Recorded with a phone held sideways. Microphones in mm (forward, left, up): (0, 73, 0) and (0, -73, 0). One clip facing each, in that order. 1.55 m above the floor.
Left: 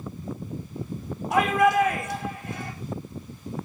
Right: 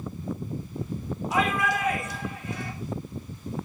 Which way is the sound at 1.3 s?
65° left (ahead or behind).